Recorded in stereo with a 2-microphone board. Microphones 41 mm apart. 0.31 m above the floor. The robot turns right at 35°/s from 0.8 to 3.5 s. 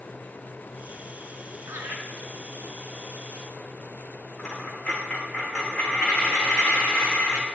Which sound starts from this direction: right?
Laughter, at 1.7 s.